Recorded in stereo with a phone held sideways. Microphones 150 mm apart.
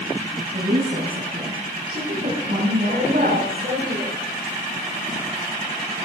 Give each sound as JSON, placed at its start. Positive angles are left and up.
{"t": 0.5, "sound": "a woman speaking", "side_deg": -60, "distance_m": 7.0}
{"t": 2.9, "sound": "a woman speaking", "side_deg": -80, "distance_m": 6.0}